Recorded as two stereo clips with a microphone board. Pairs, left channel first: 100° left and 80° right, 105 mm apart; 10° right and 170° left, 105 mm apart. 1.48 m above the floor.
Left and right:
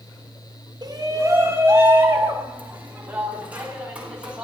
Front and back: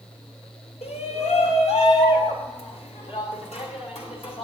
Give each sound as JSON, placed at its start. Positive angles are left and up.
{"t": 0.8, "sound": "a shout", "azimuth_deg": -25, "distance_m": 1.3}